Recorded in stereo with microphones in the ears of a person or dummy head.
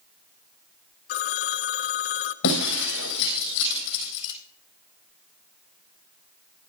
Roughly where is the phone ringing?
Left.